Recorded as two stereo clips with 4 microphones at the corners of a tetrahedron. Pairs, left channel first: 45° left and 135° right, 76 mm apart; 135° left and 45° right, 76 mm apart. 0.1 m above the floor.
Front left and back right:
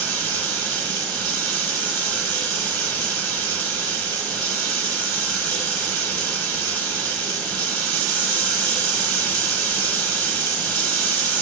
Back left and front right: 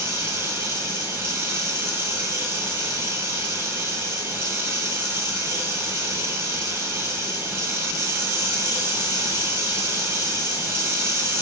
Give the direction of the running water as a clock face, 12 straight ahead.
1 o'clock.